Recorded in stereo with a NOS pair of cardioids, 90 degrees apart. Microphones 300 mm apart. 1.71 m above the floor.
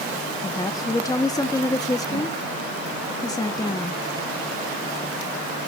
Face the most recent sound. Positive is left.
turn(degrees=10)